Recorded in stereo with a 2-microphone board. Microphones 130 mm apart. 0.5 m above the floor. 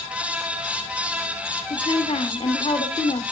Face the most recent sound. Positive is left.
turn(degrees=50)  # may be behind; listen again after turning